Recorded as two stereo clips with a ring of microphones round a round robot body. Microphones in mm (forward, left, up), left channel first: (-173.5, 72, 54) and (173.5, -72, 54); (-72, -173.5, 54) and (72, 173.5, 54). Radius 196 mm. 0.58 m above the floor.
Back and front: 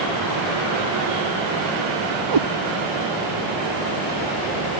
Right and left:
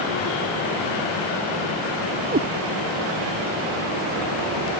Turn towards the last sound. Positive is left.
turn(degrees=0)